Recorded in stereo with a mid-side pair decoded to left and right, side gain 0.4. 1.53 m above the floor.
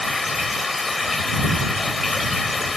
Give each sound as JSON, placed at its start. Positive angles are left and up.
{"t": 0.0, "sound": "running water", "azimuth_deg": 30}